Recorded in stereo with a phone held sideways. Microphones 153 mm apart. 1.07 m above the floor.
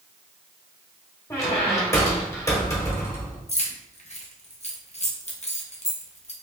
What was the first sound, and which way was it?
A squeak, 20° left (ahead or behind).